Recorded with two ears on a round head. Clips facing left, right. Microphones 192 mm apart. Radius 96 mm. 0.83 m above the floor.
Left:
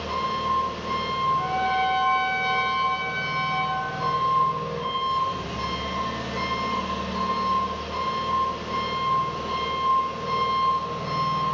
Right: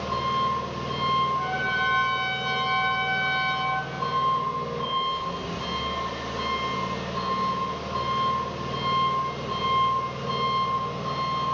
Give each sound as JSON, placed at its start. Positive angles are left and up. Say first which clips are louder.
{"t": 0.0, "sound": "an engine running", "louder": "right 1 dB", "side_deg": 70, "distance_m": 1.2}
{"t": 1.4, "sound": "a trumpet", "louder": "left 5 dB", "side_deg": -35, "distance_m": 0.8}